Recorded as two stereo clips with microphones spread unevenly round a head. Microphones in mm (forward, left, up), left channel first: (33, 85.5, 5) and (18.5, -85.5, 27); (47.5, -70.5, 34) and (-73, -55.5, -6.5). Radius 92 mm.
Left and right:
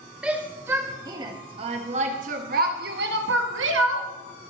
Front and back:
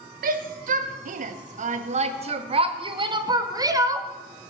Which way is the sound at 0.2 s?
Straight behind.